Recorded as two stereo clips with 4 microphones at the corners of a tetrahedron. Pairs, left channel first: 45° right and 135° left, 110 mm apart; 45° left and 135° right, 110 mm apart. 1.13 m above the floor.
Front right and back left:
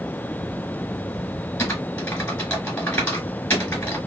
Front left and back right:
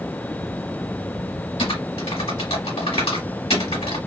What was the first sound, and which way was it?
Typing on a keyboard, 25° left.